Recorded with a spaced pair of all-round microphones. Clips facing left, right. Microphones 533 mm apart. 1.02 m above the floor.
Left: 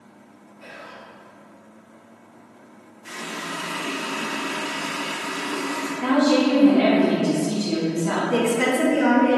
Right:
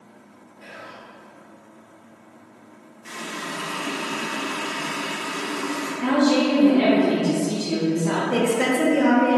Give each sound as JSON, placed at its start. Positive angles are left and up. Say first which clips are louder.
{"t": 0.6, "sound": "whispering", "louder": "even", "side_deg": -40, "distance_m": 1.1}
{"t": 3.0, "sound": "a running tap", "louder": "even", "side_deg": 10, "distance_m": 1.2}
{"t": 6.0, "sound": "a woman speaking", "louder": "left 1 dB", "side_deg": 0, "distance_m": 0.8}
{"t": 8.3, "sound": "a woman speaking", "louder": "left 1 dB", "side_deg": 5, "distance_m": 0.7}